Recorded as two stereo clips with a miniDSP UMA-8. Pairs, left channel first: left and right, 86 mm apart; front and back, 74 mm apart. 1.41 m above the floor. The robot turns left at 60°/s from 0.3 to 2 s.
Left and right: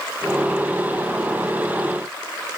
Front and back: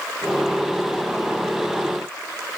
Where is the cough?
I don't hear a cough.